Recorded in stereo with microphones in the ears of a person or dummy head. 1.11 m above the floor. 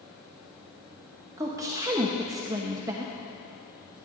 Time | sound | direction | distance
0.0 | a fan | 5° right (ahead or behind) | 3.5 m
1.4 | a woman speaking | 10° right (ahead or behind) | 0.8 m